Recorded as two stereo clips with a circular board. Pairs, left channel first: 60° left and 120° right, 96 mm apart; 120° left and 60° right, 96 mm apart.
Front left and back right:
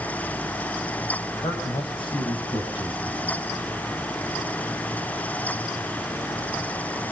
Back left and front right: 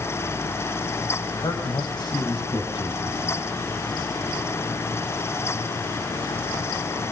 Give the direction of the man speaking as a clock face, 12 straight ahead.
9 o'clock.